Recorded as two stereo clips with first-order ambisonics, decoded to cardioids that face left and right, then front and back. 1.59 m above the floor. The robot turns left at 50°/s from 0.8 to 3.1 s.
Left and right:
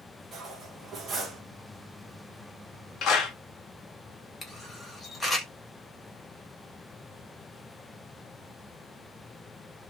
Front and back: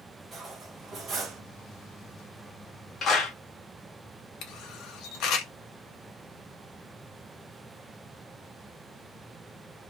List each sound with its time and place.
0.3 s cutlery clinking: 125° right, 1.0 m; by 1.4 s 155° right, 1.0 m
3.0 s a clap: 55° left, 1.1 m; by 3.4 s 50° left, 1.1 m
4.4 s a camera shutter: 10° left, 0.9 m